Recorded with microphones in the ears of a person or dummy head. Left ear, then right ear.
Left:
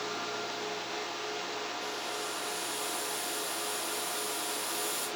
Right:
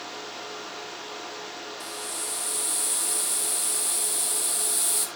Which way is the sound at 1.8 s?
55° right (ahead or behind).